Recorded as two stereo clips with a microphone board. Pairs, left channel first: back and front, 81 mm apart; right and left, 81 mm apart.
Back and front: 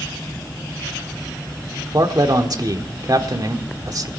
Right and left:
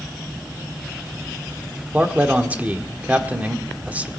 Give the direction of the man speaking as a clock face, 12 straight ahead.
11 o'clock.